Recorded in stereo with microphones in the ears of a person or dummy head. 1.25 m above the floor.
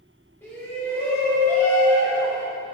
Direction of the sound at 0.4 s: 10° left (ahead or behind).